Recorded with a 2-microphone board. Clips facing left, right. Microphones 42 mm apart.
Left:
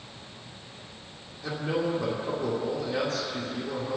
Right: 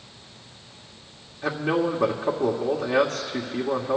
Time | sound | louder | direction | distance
1.4 | a man speaking | right 5 dB | 60° right (ahead or behind) | 1.7 m